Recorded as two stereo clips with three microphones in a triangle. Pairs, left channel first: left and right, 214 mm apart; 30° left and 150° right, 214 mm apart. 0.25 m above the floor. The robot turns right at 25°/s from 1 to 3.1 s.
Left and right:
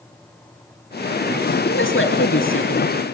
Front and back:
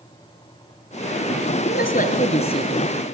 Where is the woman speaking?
70° left, 3 m; by 2.9 s 100° left, 3 m.